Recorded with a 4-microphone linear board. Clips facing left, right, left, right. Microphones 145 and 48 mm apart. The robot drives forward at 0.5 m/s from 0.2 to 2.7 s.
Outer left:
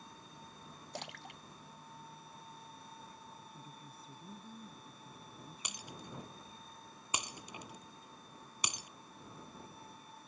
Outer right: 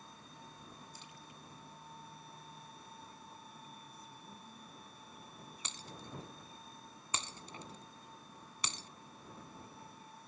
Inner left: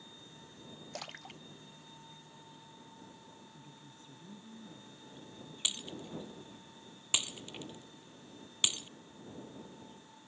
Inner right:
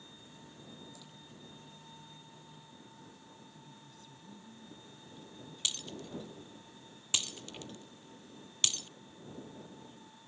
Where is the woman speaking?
30° left (ahead or behind).